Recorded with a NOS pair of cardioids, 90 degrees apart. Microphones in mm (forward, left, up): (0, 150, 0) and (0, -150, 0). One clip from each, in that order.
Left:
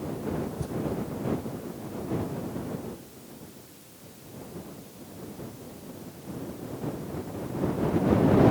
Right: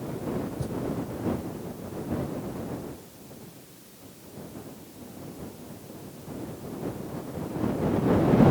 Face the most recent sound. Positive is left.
turn(degrees=-5)